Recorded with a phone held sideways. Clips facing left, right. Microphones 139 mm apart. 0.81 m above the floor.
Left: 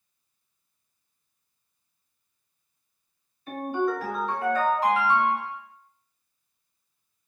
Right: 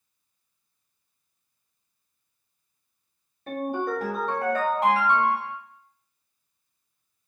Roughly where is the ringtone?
Right.